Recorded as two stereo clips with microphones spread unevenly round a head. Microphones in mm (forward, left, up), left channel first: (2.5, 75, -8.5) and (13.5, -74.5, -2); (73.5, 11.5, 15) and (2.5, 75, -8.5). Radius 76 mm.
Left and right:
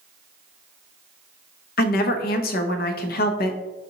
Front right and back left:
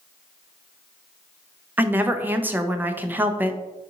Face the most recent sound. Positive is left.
turn(degrees=65)